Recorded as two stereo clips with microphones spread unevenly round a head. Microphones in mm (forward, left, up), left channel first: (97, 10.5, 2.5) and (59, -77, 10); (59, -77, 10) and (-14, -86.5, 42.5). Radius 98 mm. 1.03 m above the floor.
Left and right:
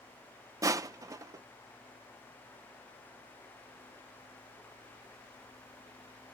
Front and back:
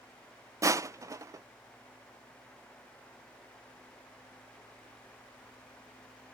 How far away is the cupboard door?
No cupboard door in this recording.